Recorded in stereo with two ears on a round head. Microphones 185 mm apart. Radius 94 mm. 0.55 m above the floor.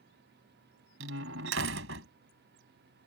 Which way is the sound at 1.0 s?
65° right (ahead or behind).